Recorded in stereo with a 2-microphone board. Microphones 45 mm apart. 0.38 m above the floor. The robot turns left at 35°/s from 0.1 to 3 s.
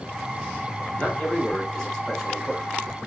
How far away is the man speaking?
About 1.7 m.